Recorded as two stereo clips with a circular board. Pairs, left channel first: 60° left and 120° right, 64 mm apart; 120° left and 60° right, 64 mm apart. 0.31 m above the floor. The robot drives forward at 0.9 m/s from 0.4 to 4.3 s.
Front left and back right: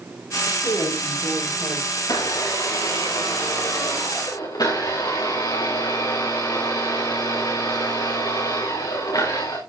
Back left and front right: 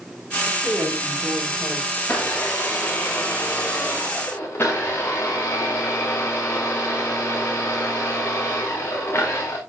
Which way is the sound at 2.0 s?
50° left.